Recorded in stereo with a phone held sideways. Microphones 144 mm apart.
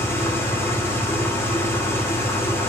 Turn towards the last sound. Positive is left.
turn(degrees=15)  # may be behind; listen again after turning